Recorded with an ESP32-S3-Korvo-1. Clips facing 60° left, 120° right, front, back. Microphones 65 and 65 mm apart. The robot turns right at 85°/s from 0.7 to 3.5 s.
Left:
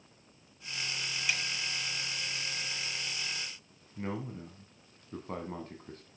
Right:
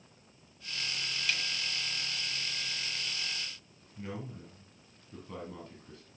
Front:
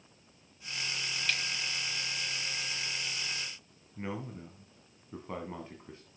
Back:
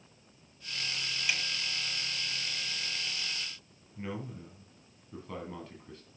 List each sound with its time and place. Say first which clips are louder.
1.3 s a snare drum: left 1 dB, back 1 dB; 115° left, 1.3 m; by 1.4 s 125° left, 1.3 m
4.0 s a man speaking: left 4 dB, front 1 dB; 60° left, 1.5 m